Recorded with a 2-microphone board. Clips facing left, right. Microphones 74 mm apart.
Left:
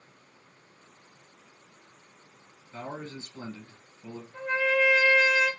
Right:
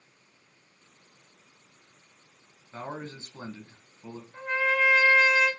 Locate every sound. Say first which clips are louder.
2.7 s a man speaking: right 1 dB; 30° right (ahead or behind), 1.3 m
4.3 s a trumpet: left 1 dB; 15° right (ahead or behind), 0.9 m